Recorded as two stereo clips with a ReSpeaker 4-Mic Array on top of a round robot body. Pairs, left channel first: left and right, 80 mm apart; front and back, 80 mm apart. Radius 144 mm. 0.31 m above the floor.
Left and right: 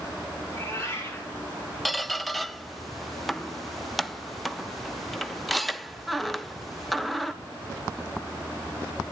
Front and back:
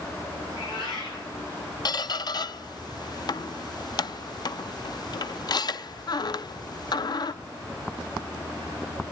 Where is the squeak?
Straight ahead, 0.7 m.